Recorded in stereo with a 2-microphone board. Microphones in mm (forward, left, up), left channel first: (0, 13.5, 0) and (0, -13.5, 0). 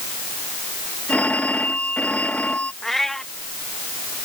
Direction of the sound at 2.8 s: 10° left (ahead or behind).